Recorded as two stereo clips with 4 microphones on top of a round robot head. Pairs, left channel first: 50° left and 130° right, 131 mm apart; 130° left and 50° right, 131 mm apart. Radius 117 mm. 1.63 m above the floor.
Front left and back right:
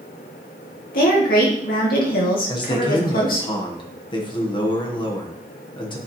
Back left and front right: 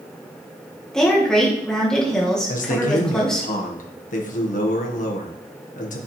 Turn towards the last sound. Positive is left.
turn(degrees=105)